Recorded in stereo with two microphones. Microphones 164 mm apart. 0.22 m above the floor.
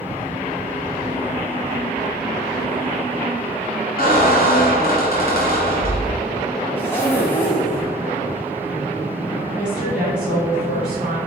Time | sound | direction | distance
4.0 | a squeak | 65° left (ahead or behind) | 1.2 m
6.8 | a zipper | 10° left (ahead or behind) | 1.2 m
9.5 | a woman speaking | 5° right (ahead or behind) | 1.4 m